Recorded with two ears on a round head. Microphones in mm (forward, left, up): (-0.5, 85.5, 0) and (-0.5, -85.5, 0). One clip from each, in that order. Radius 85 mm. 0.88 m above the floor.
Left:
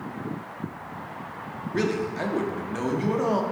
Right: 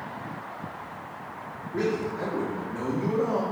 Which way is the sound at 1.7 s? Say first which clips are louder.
Left 1 dB; 65° left (ahead or behind).